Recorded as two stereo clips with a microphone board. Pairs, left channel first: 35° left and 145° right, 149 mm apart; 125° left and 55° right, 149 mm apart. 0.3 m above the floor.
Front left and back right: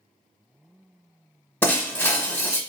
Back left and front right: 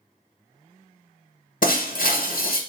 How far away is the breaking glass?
About 0.8 m.